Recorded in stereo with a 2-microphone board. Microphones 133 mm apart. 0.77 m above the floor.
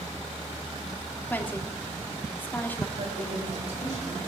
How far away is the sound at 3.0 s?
About 4 m.